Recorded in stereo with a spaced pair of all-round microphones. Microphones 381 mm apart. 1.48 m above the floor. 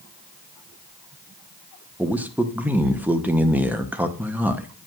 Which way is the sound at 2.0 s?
5° right (ahead or behind).